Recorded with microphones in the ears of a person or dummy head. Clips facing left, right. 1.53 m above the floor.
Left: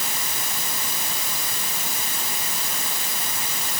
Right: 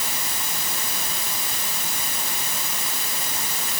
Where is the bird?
No bird in this recording.